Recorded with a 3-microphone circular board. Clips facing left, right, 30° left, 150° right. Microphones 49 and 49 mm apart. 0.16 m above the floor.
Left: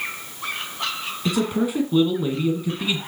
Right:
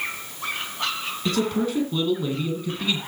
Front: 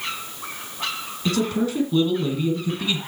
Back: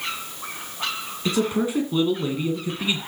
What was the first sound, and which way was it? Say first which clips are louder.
A man speaking: left 1 dB, even; 160° left.